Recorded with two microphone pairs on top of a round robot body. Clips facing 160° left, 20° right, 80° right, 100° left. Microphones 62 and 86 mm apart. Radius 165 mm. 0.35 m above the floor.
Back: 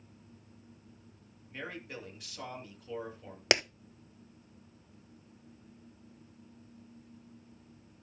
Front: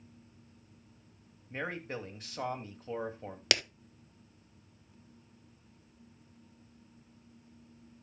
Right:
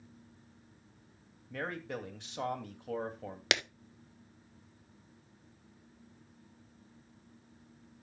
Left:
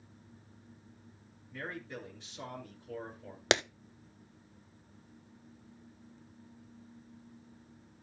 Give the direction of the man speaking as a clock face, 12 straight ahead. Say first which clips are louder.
Front 5 dB, right 4 dB; 2 o'clock.